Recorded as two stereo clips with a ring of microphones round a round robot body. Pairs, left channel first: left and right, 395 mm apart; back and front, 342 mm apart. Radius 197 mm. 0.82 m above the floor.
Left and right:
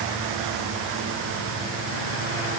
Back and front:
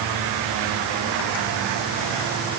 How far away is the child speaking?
No child speaking in this recording.